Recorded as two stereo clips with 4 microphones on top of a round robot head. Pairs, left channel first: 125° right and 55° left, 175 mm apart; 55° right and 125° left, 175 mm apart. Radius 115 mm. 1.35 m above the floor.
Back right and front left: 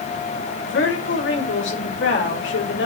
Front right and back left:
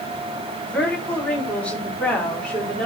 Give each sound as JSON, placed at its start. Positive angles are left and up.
{"t": 0.7, "sound": "a woman speaking", "azimuth_deg": -140, "distance_m": 4.5}